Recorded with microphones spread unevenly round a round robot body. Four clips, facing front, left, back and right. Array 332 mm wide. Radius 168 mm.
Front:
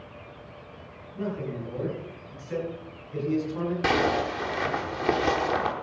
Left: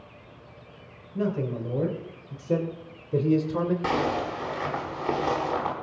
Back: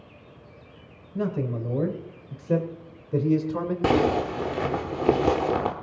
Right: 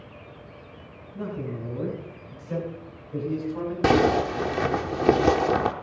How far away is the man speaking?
About 3.5 m.